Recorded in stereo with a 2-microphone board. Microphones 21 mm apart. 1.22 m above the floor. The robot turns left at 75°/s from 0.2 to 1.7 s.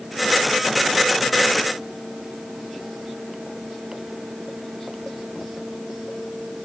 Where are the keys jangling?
I don't hear keys jangling.